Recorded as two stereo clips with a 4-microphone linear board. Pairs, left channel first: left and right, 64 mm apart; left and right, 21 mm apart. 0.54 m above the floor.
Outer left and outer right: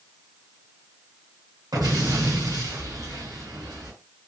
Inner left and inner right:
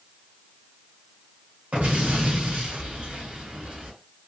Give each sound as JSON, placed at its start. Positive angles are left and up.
{"t": 1.7, "sound": "an explosion", "side_deg": -70, "distance_m": 2.5}